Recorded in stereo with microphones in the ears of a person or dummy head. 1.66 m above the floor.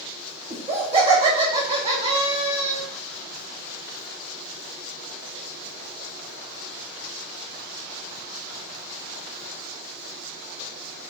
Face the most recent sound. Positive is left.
turn(degrees=-25)  # may be behind; listen again after turning